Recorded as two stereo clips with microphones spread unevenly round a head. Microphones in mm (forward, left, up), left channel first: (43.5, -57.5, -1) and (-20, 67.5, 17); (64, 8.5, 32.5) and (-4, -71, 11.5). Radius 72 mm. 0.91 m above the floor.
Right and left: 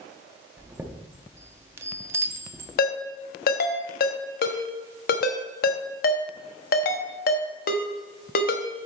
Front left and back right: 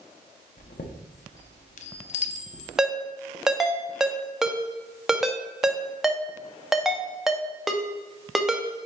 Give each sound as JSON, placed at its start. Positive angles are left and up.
{"t": 0.6, "sound": "a chime", "azimuth_deg": 45, "distance_m": 0.8}
{"t": 2.8, "sound": "a ringtone", "azimuth_deg": -45, "distance_m": 1.0}